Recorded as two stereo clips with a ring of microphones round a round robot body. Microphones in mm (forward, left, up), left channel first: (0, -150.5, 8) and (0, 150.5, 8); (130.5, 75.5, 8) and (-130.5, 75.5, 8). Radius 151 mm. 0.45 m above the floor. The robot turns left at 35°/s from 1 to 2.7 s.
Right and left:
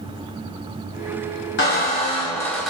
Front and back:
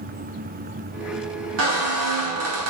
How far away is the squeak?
About 0.6 m.